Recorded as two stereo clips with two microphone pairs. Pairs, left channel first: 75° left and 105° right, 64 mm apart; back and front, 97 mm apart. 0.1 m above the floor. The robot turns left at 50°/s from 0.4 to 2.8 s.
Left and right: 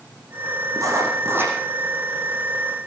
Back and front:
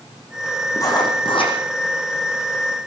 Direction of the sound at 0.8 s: 130° right.